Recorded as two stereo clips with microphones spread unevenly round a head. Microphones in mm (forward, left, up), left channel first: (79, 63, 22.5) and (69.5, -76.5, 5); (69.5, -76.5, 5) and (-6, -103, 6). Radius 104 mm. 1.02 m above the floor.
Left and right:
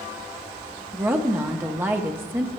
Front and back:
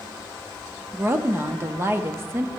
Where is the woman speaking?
145° right, 0.7 m.